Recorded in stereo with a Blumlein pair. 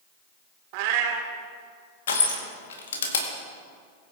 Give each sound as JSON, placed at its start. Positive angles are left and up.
{"t": 0.7, "sound": "a cat meowing", "azimuth_deg": -45, "distance_m": 1.4}
{"t": 2.1, "sound": "crushing", "azimuth_deg": 60, "distance_m": 2.0}